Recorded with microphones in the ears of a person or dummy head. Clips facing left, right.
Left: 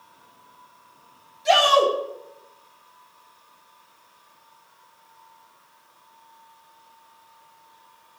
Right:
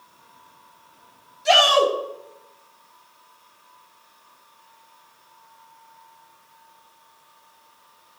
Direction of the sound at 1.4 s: 5° right (ahead or behind).